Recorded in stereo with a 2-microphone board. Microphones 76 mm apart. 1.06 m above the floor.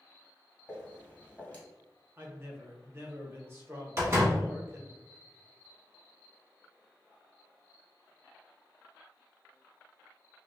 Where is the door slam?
40° right (ahead or behind), 1.3 m.